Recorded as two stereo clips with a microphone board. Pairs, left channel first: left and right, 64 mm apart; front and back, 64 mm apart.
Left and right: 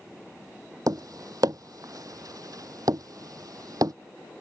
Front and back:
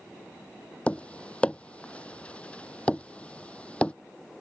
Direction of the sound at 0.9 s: 70° right.